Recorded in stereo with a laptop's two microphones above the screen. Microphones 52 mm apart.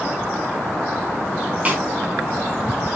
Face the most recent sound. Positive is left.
turn(degrees=-30)  # may be behind; listen again after turning